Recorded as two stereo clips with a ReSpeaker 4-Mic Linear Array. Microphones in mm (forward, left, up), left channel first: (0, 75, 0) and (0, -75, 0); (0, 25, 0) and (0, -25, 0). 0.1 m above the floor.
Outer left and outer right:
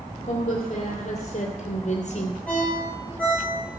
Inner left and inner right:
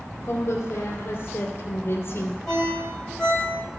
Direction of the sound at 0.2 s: 45° left (ahead or behind).